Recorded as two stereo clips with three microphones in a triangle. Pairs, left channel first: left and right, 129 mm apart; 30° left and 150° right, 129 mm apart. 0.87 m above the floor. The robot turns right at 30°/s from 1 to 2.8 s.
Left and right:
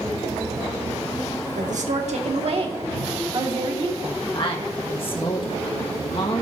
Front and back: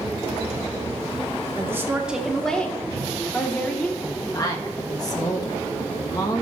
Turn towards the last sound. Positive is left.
turn(degrees=75)